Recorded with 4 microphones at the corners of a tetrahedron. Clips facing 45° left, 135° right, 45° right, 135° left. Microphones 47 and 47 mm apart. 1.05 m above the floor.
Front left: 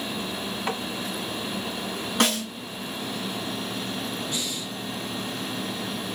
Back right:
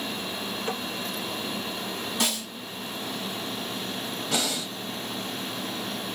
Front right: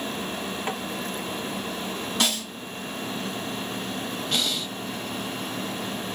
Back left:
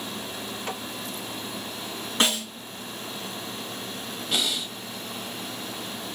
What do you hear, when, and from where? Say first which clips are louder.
0.7 s tapping: front left 3 dB, front right 3 dB; 30° left, 2.5 m
2.2 s a snare drum: front left 8 dB, back left 3 dB; 80° left, 2.0 m
4.3 s breathing: back right 3 dB, back left 1 dB; 135° right, 0.7 m